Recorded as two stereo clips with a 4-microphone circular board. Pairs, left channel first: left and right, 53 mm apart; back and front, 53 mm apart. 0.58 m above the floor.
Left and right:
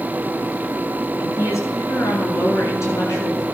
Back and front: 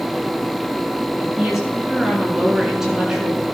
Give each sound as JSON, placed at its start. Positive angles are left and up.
{"t": 1.2, "sound": "a woman speaking", "azimuth_deg": 80, "distance_m": 7.5}